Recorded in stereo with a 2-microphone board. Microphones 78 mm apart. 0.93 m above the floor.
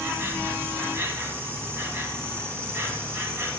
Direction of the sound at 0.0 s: 30° right (ahead or behind).